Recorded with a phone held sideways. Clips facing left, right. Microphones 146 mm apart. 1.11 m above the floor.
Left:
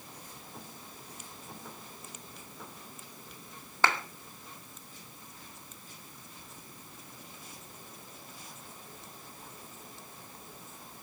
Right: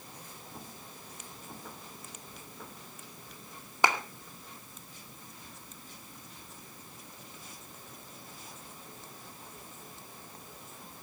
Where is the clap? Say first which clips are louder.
Right 1 dB; 15° right (ahead or behind), 2 m.